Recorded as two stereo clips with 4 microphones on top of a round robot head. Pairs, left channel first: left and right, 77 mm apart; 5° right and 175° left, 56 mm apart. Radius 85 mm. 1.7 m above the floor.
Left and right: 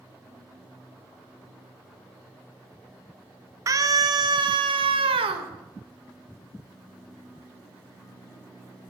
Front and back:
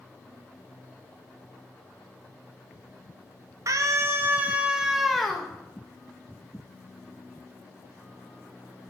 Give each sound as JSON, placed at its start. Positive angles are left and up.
{"t": 3.7, "sound": "a scream", "azimuth_deg": -140, "distance_m": 1.9}